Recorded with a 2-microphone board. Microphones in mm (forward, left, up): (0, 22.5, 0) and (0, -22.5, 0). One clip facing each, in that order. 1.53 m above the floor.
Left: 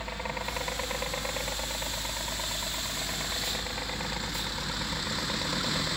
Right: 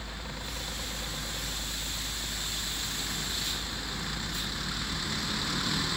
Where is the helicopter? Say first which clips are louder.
Left 6 dB; 45° left (ahead or behind); by 6.0 s 80° left.